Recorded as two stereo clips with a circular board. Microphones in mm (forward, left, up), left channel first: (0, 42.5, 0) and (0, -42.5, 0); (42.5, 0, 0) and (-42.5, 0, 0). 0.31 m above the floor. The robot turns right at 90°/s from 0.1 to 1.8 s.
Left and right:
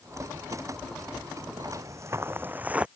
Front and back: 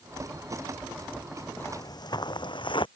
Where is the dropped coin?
No dropped coin in this recording.